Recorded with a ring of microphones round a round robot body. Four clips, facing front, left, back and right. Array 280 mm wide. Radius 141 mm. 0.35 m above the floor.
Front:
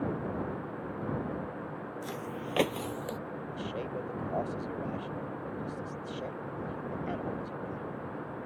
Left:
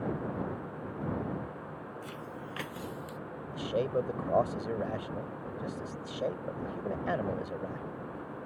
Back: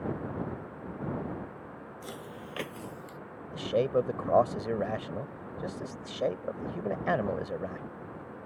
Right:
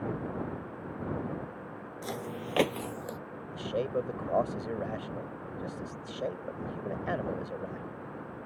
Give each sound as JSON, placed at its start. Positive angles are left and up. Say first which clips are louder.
{"t": 2.0, "sound": "footsteps", "louder": "right 5 dB, front 3 dB", "azimuth_deg": -90}
{"t": 3.5, "sound": "a man speaking", "louder": "left 1 dB, back 12 dB", "azimuth_deg": 180}